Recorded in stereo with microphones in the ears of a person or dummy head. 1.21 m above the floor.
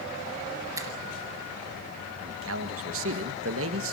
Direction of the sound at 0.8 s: 15° right (ahead or behind).